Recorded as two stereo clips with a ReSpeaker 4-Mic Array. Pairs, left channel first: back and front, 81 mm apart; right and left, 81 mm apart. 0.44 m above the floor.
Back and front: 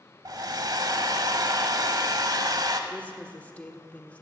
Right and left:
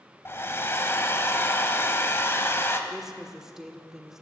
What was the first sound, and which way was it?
A hair dryer, 30° right.